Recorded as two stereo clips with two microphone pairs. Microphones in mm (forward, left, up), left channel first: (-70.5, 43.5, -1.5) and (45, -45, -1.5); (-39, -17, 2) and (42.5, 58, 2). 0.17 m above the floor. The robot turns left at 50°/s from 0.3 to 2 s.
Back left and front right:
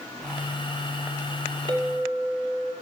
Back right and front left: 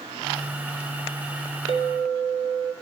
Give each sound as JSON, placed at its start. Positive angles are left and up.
{"t": 1.7, "sound": "a clink", "azimuth_deg": 15, "distance_m": 3.0}